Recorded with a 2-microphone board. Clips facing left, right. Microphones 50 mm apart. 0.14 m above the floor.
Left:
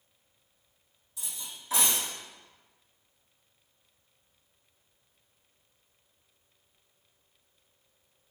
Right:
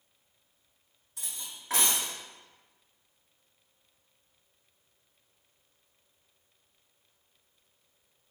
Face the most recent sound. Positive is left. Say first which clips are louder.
# even
turn(degrees=-55)  # may be behind; listen again after turning